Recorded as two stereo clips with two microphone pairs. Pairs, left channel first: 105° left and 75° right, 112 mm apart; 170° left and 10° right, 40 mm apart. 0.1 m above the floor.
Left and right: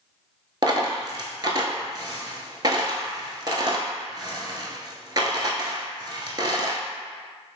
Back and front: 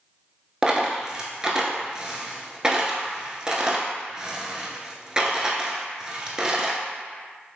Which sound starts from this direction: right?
A dropped coin, at 0.6 s.